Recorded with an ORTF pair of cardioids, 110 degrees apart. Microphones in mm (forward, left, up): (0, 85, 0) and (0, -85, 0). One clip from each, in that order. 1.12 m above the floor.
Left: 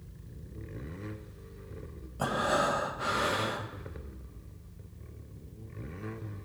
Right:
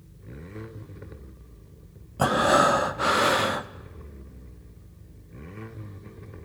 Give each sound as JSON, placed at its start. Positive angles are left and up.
{"t": 2.2, "sound": "breathing", "azimuth_deg": -40, "distance_m": 0.8}